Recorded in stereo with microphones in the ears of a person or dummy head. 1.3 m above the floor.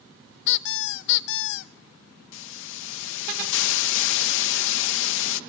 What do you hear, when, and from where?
0.5 s a squeak: 65° left (ahead or behind), 0.8 m
2.3 s a hiss: 70° left (ahead or behind), 1.4 m